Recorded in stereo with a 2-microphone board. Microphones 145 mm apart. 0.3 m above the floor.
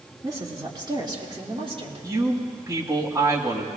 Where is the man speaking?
20° right (ahead or behind), 2 m.